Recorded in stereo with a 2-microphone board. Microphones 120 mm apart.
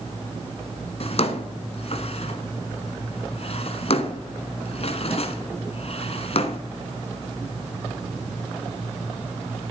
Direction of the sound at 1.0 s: 55° left (ahead or behind).